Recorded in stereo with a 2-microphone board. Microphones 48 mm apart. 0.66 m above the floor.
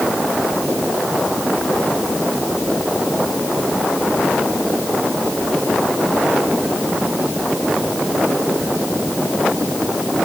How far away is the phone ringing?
I don't hear a phone ringing.